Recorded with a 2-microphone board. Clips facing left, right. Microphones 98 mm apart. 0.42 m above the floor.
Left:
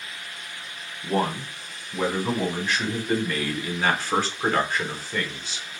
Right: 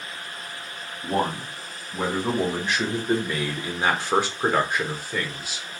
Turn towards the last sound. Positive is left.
turn(degrees=-5)  # may be behind; listen again after turning